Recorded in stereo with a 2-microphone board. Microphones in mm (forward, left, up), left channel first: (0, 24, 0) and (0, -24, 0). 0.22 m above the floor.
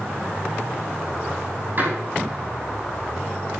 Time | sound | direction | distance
1.8 | a door slam | 45° right (ahead or behind) | 7.5 m